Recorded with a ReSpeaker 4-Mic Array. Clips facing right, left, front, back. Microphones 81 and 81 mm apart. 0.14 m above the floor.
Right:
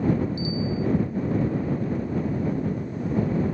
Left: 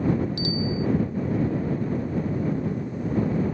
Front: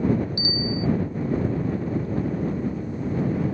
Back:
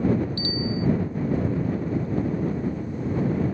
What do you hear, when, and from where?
0.4 s a bicycle bell: 75° left